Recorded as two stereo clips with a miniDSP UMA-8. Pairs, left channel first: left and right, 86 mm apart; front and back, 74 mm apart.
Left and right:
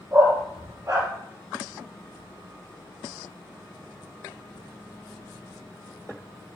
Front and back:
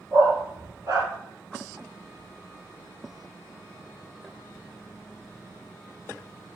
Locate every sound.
0.1 s a dog barking: 135° right, 2 m